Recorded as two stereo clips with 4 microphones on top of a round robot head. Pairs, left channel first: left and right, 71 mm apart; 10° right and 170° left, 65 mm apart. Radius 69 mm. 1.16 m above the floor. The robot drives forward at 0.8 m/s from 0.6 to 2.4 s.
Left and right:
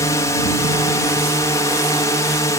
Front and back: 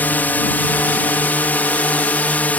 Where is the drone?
55° left.